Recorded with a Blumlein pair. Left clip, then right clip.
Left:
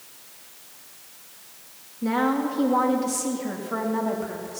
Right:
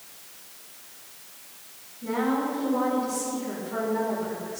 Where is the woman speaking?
30° left, 2.5 m; by 4.6 s 70° left, 3.5 m.